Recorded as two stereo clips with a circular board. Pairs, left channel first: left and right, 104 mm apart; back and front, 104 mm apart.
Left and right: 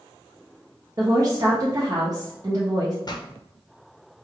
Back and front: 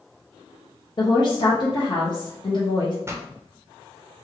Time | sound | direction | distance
1.0 | a woman speaking | 145° right | 0.6 m
3.0 | a pop | 60° left | 0.5 m